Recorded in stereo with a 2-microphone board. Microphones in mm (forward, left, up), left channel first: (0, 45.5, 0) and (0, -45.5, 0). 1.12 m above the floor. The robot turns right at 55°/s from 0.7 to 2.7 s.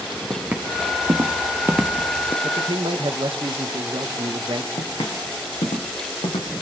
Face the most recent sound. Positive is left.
turn(degrees=70)  # may be behind; listen again after turning